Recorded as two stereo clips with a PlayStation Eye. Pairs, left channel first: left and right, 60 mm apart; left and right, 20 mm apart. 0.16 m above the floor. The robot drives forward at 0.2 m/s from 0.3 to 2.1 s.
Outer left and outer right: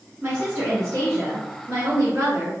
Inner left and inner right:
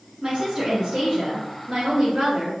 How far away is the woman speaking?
About 1.4 m.